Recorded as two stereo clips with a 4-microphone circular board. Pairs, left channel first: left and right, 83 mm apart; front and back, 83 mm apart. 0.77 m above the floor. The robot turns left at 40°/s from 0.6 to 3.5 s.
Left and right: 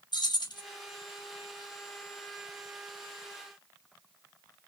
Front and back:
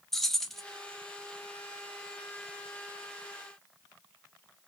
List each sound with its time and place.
0.1 s keys jangling: 85° left, 0.5 m